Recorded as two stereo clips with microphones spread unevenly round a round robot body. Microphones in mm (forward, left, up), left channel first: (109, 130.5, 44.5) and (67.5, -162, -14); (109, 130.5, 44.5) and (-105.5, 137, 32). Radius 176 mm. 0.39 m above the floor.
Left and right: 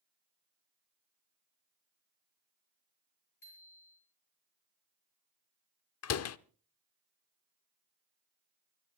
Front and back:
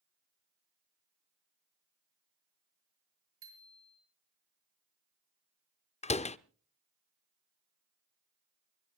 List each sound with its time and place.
3.4 s a bicycle bell: 165° left, 6 m
6.0 s a door slam: 55° left, 0.6 m